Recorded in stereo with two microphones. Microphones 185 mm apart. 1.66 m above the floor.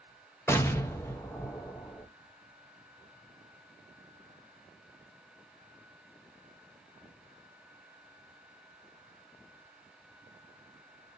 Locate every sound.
0.5 s an explosion: 15° left (ahead or behind), 0.6 m